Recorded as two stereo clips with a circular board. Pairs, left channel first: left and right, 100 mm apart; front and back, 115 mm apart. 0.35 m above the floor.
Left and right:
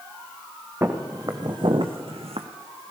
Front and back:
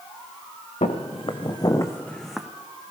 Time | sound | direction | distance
0.8 | footsteps | 25° right | 1.9 m